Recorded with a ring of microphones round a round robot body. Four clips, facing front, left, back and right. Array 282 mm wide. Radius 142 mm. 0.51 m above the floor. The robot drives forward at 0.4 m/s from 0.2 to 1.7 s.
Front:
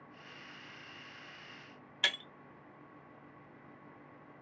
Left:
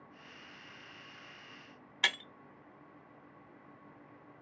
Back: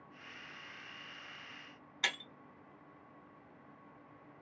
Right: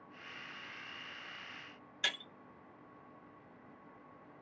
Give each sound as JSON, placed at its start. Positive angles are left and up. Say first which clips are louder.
{"t": 2.0, "sound": "breaking glass", "louder": "left 5 dB, front 2 dB", "azimuth_deg": 100, "distance_m": 0.8}